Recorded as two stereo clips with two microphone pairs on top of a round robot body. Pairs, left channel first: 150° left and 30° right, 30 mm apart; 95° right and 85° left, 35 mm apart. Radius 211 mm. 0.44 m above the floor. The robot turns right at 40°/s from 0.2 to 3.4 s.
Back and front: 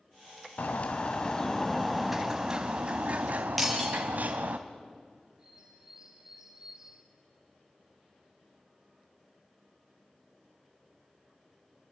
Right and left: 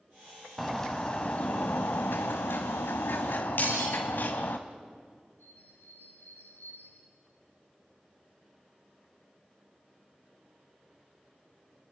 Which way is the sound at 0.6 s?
175° right.